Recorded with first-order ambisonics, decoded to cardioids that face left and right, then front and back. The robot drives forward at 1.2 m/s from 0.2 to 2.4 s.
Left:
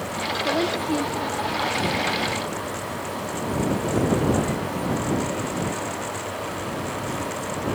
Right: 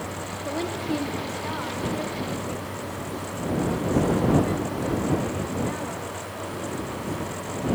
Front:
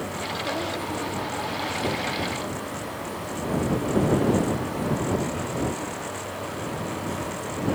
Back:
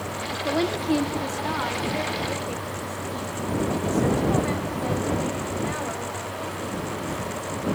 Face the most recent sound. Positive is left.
turn(degrees=175)